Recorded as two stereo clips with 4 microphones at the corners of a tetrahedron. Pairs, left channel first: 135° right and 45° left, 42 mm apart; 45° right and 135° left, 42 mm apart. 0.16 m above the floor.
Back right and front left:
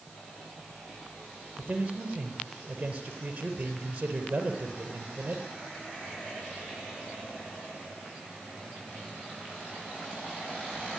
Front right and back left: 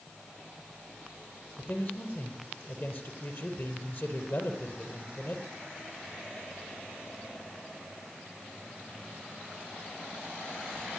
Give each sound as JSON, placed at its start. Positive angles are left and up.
{"t": 1.6, "sound": "a man speaking", "azimuth_deg": -15, "distance_m": 4.0}